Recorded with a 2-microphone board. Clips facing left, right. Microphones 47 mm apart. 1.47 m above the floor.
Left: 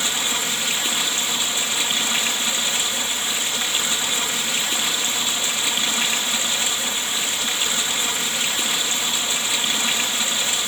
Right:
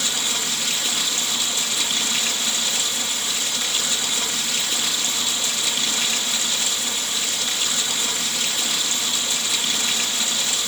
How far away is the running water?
About 1.9 m.